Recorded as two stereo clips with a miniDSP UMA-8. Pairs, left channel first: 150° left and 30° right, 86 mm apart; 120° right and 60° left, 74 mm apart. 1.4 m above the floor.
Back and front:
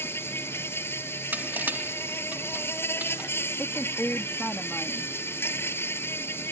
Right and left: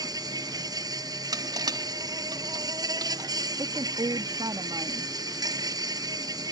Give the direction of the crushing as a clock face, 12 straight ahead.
11 o'clock.